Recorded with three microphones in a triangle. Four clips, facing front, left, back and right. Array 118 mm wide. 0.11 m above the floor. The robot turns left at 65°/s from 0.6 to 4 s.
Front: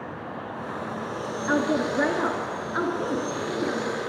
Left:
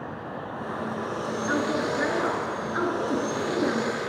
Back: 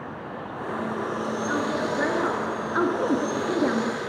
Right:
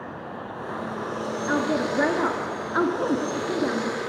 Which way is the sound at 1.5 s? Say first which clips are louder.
Right 2 dB, front 5 dB; 20° right.